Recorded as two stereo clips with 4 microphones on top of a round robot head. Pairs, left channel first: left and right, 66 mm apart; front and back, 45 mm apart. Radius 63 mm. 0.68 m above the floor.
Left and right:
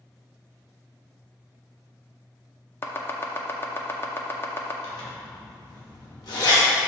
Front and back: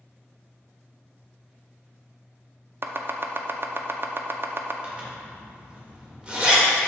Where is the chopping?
145° left, 0.6 m.